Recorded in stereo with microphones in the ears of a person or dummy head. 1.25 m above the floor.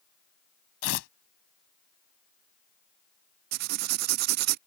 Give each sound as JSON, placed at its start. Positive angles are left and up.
{"t": 0.8, "sound": "tearing paper", "side_deg": 80}
{"t": 3.5, "sound": "writing", "side_deg": -50}